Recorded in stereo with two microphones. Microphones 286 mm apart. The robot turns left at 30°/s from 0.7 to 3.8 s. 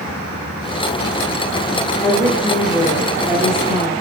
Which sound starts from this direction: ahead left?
A woman speaking, at 2.0 s.